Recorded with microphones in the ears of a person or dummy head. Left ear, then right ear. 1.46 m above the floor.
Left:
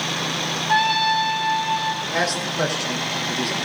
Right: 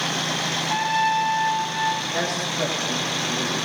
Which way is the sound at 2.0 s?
75° left (ahead or behind).